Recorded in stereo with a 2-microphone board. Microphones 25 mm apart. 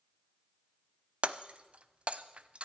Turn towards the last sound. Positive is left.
turn(degrees=-55)  # may be behind; listen again after turning